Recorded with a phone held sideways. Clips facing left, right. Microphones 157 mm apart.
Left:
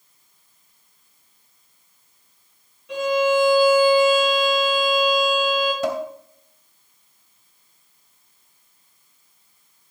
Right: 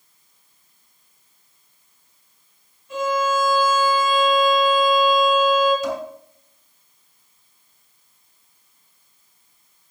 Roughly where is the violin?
Left.